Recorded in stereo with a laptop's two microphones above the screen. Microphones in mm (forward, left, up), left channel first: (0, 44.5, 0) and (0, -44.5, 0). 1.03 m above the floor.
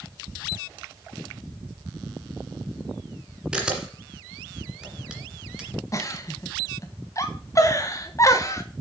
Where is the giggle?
35° left (ahead or behind), 1.0 m.